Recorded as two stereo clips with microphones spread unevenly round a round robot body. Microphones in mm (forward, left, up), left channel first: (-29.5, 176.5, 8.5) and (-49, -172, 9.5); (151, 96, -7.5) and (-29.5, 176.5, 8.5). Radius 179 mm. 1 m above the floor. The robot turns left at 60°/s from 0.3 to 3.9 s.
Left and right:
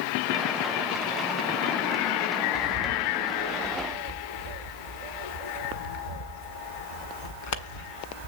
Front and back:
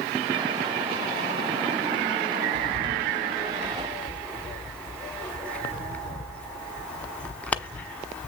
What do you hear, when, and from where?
2.5 s a bird: 140° left, 1.3 m; by 8.3 s 60° left, 1.3 m